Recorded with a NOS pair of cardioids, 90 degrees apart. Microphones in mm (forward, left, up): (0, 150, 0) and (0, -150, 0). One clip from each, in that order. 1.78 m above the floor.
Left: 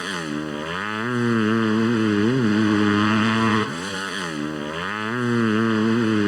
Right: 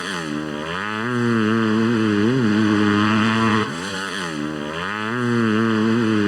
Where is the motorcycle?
10° right.